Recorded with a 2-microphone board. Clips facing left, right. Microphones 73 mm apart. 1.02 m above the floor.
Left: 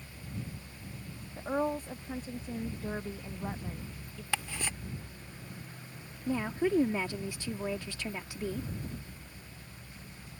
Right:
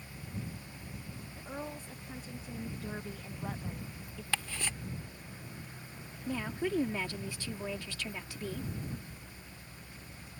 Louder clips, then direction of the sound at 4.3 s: Left 1 dB; 10° left (ahead or behind).